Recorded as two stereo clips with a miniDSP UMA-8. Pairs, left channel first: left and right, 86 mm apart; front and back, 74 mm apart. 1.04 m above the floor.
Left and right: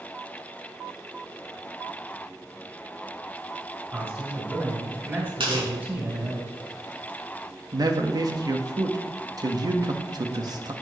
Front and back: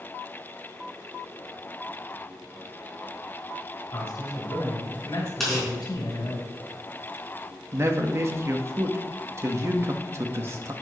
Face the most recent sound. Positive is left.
turn(degrees=-130)